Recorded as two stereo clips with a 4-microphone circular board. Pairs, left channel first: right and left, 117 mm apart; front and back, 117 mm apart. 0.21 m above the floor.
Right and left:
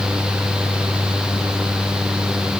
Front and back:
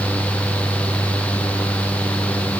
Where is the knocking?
I don't hear knocking.